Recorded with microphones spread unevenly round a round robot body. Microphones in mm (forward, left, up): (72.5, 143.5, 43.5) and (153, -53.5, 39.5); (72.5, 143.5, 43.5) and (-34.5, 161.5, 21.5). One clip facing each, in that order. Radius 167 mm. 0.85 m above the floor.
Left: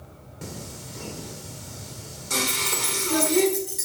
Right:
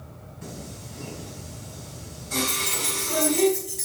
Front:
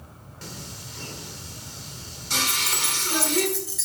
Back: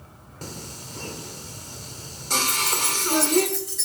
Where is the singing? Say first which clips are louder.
Left 1 dB, back 3 dB; 125° left, 1.6 m.